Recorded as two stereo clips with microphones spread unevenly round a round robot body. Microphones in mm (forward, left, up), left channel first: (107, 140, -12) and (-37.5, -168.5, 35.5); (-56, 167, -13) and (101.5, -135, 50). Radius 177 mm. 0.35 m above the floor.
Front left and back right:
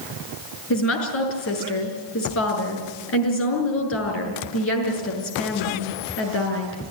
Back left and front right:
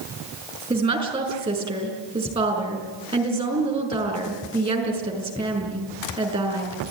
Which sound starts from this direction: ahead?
A woman speaking, at 0.7 s.